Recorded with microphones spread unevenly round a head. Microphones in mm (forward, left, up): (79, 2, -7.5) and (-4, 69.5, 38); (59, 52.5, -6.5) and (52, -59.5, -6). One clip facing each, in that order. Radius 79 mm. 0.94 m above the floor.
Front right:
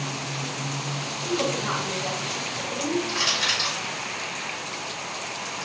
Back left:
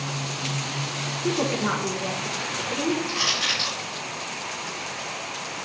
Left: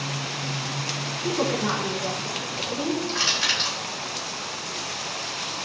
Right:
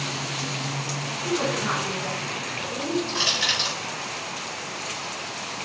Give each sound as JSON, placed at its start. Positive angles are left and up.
{"t": 1.2, "sound": "a woman speaking", "azimuth_deg": 150, "distance_m": 4.5}
{"t": 3.1, "sound": "crushing", "azimuth_deg": -135, "distance_m": 5.5}